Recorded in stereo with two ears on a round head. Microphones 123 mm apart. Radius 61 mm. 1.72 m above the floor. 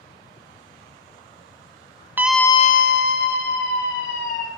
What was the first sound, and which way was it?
A scream, 15° right (ahead or behind).